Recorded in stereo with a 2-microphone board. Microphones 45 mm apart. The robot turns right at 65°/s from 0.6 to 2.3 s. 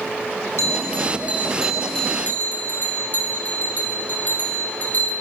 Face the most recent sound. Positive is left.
turn(degrees=40)